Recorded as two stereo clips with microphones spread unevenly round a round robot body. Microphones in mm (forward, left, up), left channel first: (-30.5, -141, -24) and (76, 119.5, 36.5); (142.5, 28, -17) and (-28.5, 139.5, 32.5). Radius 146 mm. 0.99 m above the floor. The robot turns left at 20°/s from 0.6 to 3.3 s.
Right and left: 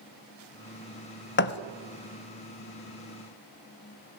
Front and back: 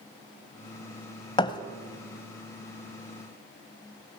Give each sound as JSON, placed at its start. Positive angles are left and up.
{"t": 1.4, "sound": "a thud", "azimuth_deg": -105, "distance_m": 0.8}